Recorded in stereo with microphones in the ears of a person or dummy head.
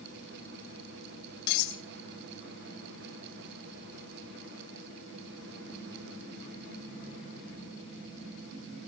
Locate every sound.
1.5 s cutlery clinking: 65° left (ahead or behind), 1.9 m